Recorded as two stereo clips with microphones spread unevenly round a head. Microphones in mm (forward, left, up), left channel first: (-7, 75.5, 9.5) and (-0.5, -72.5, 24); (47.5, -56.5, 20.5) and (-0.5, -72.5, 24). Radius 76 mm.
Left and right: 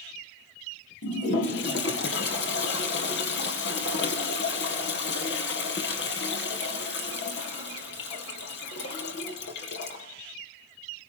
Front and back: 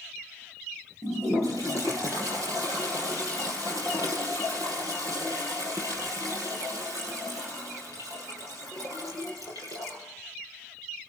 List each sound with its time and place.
1.0 s a toilet flushing: 75° left, 5.5 m